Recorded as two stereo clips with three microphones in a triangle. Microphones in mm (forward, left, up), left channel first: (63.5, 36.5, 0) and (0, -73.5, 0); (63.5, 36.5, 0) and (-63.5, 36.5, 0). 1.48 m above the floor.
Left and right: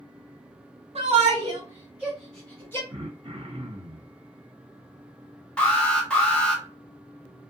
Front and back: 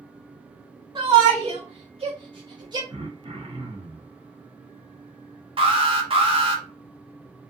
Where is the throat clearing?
145° right, 0.8 m.